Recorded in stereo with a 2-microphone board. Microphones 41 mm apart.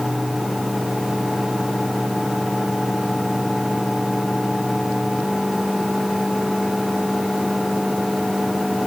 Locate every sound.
Only background noise.